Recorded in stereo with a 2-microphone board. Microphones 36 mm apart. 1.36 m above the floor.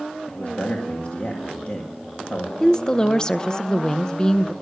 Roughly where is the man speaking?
Left.